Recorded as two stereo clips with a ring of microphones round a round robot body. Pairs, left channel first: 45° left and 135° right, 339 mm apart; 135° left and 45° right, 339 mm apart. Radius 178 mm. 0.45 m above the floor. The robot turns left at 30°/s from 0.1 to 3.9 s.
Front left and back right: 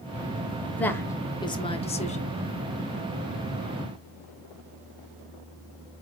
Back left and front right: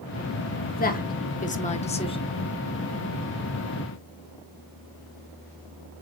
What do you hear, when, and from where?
0.8 s a woman speaking: 125° left, 0.7 m; by 2.3 s 80° left, 0.7 m